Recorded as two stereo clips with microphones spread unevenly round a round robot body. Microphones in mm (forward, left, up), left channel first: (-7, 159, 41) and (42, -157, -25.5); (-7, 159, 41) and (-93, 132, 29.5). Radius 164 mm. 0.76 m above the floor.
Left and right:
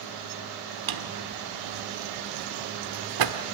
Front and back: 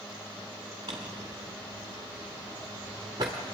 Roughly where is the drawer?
Right.